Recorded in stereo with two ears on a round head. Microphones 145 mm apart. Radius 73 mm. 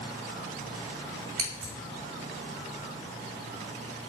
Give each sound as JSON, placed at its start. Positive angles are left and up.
{"t": 1.4, "sound": "scissors", "side_deg": -75, "distance_m": 2.5}